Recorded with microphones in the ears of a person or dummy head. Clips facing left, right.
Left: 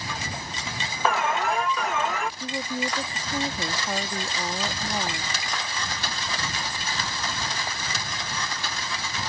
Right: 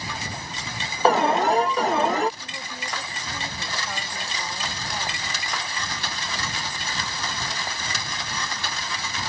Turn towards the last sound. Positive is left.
turn(degrees=30)  # may be behind; listen again after turning